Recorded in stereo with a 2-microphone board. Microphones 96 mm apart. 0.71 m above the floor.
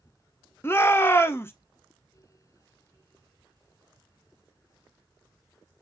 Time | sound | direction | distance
0.6 | a shout | 25° left (ahead or behind) | 0.6 m